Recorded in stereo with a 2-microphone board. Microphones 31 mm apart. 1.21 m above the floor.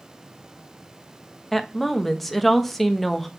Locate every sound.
1.5 s a woman speaking: 5° left (ahead or behind), 1.0 m